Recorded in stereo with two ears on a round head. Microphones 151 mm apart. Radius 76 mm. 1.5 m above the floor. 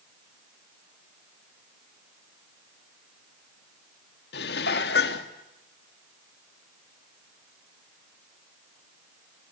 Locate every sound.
4.3 s dishes clattering: 75° left (ahead or behind), 2 m